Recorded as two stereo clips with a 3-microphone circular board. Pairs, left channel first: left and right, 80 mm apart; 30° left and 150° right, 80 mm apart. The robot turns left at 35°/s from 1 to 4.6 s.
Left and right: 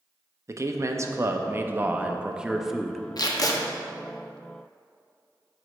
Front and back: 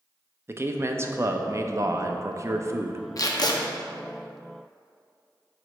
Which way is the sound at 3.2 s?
65° left.